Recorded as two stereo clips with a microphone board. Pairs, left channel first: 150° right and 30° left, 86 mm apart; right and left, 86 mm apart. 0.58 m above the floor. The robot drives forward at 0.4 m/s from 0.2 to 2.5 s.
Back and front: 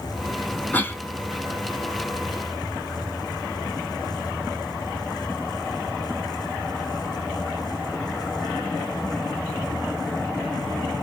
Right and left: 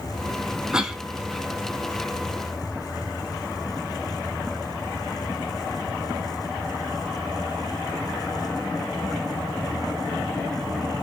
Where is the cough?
165° left, 0.6 m; by 1.0 s 170° left, 0.7 m.